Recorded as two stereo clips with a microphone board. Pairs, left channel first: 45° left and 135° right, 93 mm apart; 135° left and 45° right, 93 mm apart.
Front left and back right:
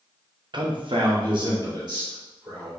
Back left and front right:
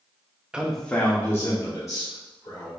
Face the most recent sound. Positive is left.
turn(degrees=180)